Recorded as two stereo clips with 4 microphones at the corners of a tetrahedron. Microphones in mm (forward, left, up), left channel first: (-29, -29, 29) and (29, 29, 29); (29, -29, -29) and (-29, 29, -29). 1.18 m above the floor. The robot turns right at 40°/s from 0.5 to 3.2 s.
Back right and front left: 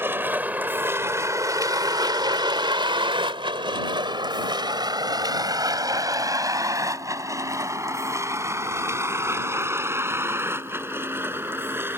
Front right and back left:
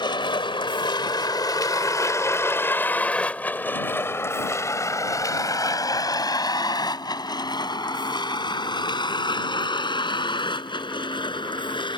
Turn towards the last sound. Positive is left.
turn(degrees=-20)